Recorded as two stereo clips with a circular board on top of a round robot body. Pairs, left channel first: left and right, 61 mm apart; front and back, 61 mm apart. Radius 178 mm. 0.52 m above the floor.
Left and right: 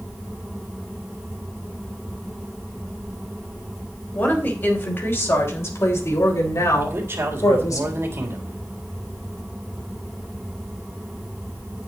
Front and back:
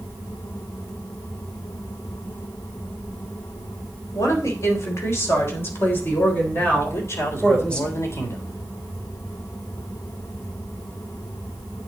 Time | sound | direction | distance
4.1 | a woman speaking | 30° left | 4 m
6.8 | a man speaking | 40° right | 3.5 m